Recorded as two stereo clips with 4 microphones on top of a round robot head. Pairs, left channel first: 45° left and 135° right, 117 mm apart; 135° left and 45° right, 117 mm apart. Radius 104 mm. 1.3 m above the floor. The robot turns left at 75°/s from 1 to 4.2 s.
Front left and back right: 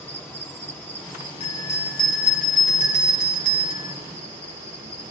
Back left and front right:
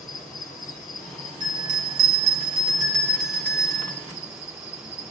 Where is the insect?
120° left, 1.4 m; by 5.1 s 120° right, 1.4 m.